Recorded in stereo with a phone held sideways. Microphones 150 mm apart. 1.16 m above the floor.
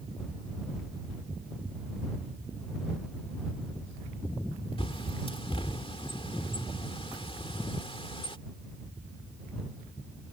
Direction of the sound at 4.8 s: 40° left (ahead or behind).